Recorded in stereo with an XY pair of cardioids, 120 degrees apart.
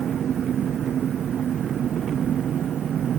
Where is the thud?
No thud in this recording.